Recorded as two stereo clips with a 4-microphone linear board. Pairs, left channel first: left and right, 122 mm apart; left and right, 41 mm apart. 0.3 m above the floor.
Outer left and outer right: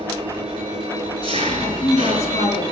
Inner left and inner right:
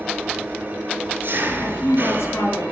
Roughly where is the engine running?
Right.